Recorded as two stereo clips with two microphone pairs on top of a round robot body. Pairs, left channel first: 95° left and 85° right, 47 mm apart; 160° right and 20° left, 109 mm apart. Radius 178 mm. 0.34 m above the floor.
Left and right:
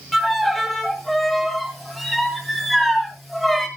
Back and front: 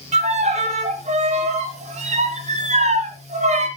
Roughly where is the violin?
Ahead.